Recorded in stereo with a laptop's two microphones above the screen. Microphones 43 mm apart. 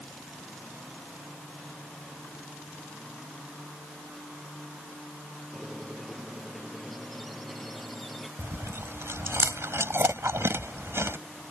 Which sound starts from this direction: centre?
A squeak, at 5.5 s.